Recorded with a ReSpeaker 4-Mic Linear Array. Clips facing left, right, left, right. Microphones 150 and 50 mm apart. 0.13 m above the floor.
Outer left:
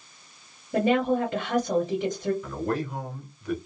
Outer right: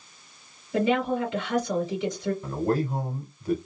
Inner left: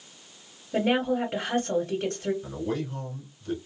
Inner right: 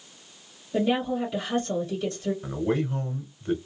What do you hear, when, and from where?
0.7 s a woman speaking: 50° left (ahead or behind), 2 m
2.4 s a man speaking: 35° right (ahead or behind), 1.3 m